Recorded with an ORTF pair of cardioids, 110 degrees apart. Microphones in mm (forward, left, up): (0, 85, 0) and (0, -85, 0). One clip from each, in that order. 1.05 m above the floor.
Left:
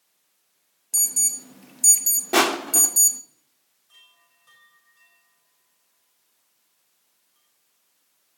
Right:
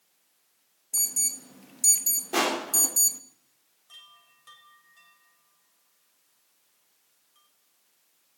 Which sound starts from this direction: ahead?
An alarm, at 0.9 s.